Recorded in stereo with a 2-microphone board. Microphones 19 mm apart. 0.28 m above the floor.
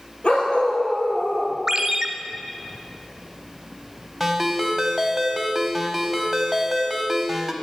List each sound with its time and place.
0.2 s a dog barking: 80° left, 3 m
1.7 s a ringtone: 25° right (ahead or behind), 1.1 m
4.2 s a ringtone: 5° right (ahead or behind), 1.2 m